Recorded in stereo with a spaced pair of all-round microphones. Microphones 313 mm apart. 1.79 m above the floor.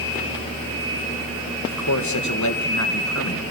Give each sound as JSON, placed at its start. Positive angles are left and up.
{"t": 1.6, "sound": "a man speaking", "side_deg": 65, "distance_m": 2.5}